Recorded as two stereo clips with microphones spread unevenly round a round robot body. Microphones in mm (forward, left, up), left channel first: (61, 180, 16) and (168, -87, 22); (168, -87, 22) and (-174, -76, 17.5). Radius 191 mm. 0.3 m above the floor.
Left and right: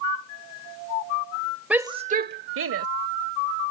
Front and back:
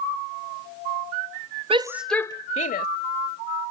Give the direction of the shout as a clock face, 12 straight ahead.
5 o'clock.